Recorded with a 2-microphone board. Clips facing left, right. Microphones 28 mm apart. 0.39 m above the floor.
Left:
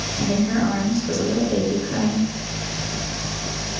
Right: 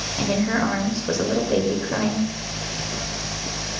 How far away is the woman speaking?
About 1.2 m.